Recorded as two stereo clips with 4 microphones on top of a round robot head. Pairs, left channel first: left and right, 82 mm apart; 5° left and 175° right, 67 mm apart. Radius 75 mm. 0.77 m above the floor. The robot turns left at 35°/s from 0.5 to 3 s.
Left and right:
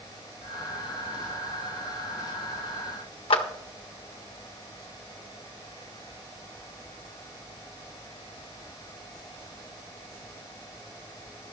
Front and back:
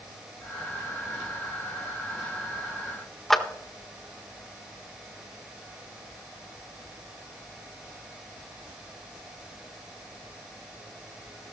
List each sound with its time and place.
3.3 s a clap: 90° left, 1.6 m